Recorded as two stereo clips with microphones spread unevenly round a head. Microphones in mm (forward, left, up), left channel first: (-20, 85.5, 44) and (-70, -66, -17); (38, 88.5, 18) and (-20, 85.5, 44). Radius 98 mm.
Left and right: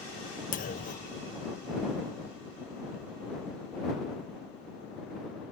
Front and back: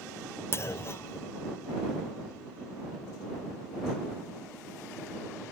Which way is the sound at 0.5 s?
60° left.